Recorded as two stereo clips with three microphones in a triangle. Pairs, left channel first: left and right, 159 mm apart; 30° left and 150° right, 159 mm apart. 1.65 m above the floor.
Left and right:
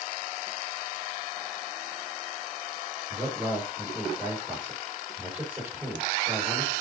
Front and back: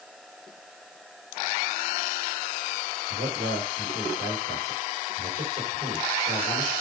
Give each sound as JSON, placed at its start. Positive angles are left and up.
{"t": 3.1, "sound": "a man speaking", "azimuth_deg": -165, "distance_m": 5.5}